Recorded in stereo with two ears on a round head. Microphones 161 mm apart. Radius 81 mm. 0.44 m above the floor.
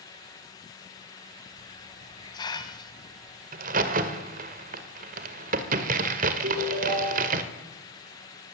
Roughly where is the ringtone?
Right.